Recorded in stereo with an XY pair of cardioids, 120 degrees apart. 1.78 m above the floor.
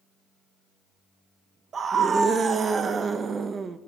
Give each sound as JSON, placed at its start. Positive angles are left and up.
{"t": 1.7, "sound": "a scream", "azimuth_deg": -35, "distance_m": 2.5}